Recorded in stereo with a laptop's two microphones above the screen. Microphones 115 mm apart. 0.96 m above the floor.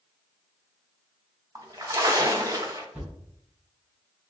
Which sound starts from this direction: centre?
A thud, at 2.9 s.